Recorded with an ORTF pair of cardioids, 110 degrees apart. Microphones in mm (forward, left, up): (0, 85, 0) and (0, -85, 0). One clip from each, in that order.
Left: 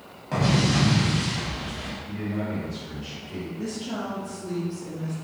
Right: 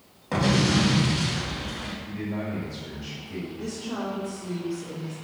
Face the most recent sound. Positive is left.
turn(degrees=50)